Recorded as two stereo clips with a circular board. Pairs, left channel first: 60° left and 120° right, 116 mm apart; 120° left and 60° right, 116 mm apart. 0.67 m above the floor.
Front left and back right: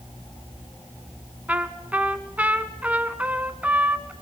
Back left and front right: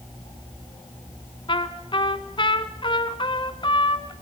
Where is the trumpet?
165° left, 1.1 m.